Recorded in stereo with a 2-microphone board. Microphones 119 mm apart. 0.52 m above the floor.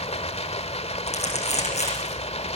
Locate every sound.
0.0 s running water: 60° left (ahead or behind), 1.7 m
1.1 s crumpling: 65° left (ahead or behind), 9 m